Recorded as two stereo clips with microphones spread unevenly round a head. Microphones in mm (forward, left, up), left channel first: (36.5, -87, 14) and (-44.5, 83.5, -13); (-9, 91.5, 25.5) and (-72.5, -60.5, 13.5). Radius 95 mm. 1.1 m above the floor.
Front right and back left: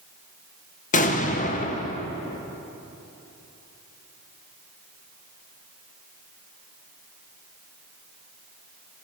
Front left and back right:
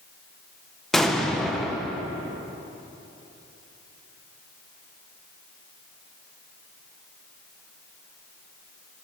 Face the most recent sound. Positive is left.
turn(degrees=-25)